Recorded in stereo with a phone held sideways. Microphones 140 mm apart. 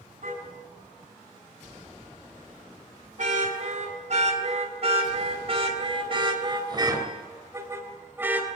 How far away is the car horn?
About 5.5 m.